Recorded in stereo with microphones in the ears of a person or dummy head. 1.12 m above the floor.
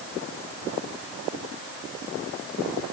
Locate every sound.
Only background noise.